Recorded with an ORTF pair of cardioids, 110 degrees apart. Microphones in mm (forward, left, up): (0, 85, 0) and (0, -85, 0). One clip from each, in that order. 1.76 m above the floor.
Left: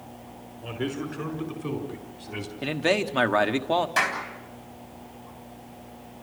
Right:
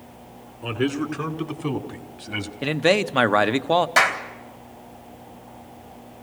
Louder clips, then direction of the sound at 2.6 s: Right 5 dB; 25° right.